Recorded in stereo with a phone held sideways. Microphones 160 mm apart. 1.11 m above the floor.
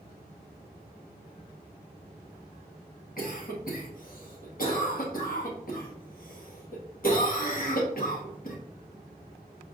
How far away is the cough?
About 1.4 m.